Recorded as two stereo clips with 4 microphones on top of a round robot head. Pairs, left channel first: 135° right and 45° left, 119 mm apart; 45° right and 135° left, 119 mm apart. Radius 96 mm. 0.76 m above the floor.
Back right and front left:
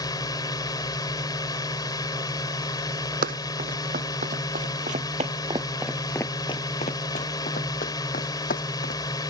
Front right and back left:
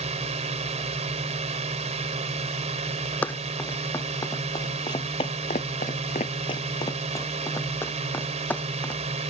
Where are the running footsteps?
35° left; by 9.0 s 120° right.